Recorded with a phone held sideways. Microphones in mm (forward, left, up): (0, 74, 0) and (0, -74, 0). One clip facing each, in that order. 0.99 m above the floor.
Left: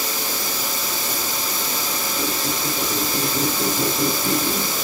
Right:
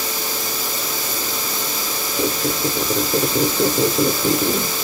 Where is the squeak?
70° right (ahead or behind), 1.3 m.